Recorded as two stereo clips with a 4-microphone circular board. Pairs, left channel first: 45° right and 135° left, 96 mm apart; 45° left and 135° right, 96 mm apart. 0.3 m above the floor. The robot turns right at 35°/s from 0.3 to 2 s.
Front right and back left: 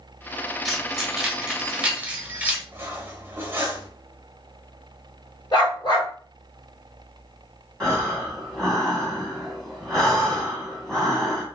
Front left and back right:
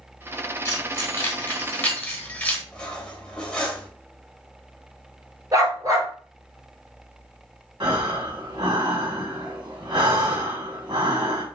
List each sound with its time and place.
0.7 s keys jangling: 40° left, 0.9 m; by 2.6 s 90° left, 0.9 m
2.7 s cutlery clinking: 110° left, 0.8 m
5.5 s a dog barking: 85° right, 1.7 m
7.8 s breathing: 125° right, 1.8 m